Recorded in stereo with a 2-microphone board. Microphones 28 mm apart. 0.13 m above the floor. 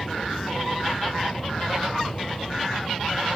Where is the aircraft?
30° left (ahead or behind).